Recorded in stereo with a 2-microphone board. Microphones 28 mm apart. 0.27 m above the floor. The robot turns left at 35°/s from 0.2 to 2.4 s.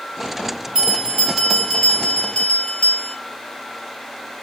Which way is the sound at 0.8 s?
160° right.